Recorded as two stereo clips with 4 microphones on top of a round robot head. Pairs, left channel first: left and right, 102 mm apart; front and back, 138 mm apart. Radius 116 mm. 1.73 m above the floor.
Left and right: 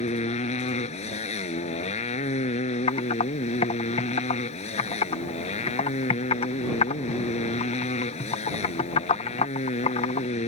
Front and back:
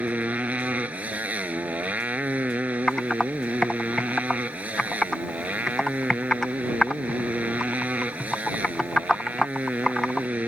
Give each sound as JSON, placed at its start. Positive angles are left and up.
{"t": 0.0, "sound": "a motorcycle", "azimuth_deg": 100}
{"t": 2.9, "sound": "typing on a keyboard", "azimuth_deg": 85}